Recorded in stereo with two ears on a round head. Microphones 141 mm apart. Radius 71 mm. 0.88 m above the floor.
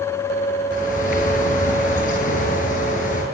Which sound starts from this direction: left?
A bird, at 0.7 s.